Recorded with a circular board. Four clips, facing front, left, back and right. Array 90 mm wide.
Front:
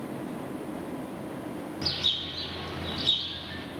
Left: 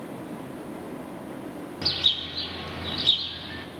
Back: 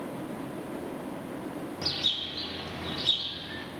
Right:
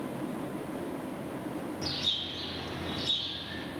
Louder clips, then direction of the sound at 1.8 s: Left 3 dB, front 1 dB; 85° left.